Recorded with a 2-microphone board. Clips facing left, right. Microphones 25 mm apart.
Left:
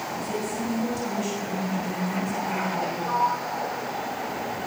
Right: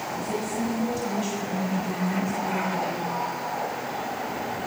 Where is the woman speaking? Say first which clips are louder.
Right 2 dB; 10° right (ahead or behind), 9.5 m; by 3.0 s 20° right (ahead or behind), 9 m.